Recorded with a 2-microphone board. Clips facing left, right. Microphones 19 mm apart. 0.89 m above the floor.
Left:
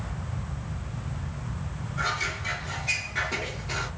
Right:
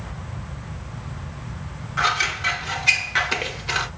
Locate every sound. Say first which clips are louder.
2.0 s scissors: right 8 dB; 80° right, 0.8 m